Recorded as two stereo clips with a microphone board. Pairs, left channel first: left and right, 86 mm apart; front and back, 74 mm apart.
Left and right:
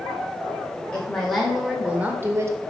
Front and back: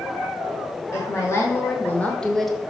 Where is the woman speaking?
20° left, 1.5 m; by 2.5 s 90° right, 1.2 m.